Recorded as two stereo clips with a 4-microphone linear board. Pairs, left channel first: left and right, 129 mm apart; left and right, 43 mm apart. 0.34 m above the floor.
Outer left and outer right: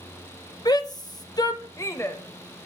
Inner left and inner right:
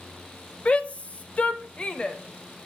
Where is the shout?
30° left (ahead or behind), 1.1 m; by 2.2 s 20° left (ahead or behind), 1.2 m.